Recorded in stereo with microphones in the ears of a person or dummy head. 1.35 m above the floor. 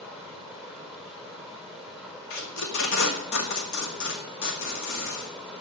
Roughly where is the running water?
Centre.